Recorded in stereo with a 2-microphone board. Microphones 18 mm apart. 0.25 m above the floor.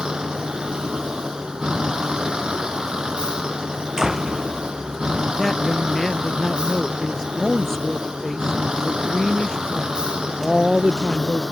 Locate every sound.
0.0 s a vehicle: 55° right (ahead or behind)
4.0 s a door slam: 35° right (ahead or behind)
5.4 s a woman speaking: 30° left (ahead or behind)